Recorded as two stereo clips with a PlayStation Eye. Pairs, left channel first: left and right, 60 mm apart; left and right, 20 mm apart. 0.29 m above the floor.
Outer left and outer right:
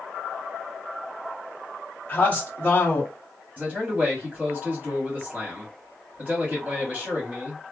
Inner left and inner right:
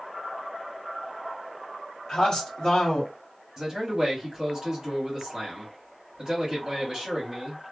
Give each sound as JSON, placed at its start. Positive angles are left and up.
{"t": 2.1, "sound": "a man speaking", "side_deg": 30, "distance_m": 1.2}
{"t": 3.6, "sound": "a man speaking", "side_deg": -35, "distance_m": 1.7}